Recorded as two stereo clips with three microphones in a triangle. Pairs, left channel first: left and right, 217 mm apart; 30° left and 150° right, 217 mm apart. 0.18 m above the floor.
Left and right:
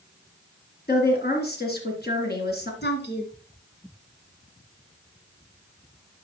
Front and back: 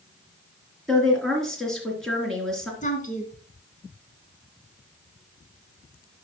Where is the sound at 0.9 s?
115° left, 3 m.